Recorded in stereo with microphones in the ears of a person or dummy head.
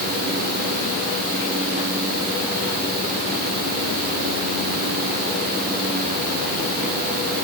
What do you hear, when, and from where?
Only background noise.